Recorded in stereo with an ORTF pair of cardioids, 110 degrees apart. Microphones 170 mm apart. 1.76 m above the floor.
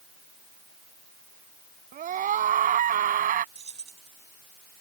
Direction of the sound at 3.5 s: 40° right.